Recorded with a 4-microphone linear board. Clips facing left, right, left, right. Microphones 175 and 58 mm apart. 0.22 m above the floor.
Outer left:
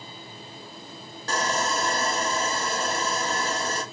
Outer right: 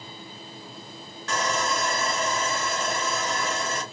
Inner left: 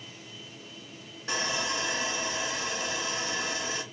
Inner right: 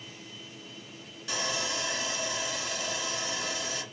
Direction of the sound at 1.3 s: 35° left (ahead or behind).